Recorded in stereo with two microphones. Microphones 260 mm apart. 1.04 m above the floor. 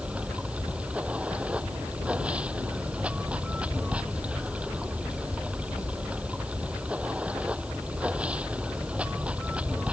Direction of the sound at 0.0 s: 5° right (ahead or behind).